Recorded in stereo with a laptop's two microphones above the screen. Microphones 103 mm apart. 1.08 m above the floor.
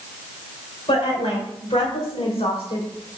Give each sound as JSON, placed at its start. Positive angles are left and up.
{"t": 0.9, "sound": "a woman speaking", "side_deg": 70, "distance_m": 4.5}